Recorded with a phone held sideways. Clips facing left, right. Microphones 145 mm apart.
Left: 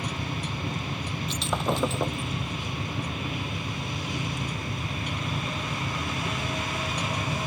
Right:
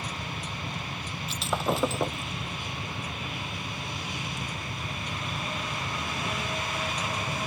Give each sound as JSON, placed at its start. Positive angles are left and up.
{"t": 0.0, "sound": "a machine running", "side_deg": 70}
{"t": 1.3, "sound": "breaking glass", "side_deg": 0}